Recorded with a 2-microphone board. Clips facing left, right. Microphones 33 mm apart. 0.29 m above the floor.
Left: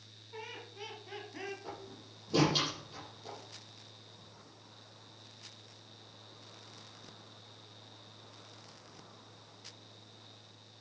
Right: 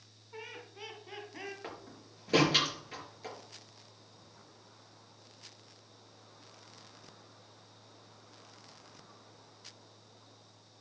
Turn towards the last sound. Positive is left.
turn(degrees=-75)  # may be behind; listen again after turning